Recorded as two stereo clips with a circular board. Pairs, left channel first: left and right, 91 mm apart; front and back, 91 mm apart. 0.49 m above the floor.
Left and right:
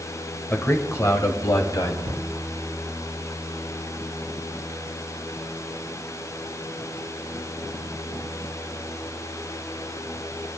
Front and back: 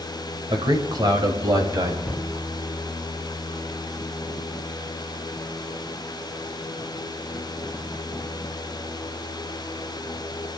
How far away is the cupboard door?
About 5.5 m.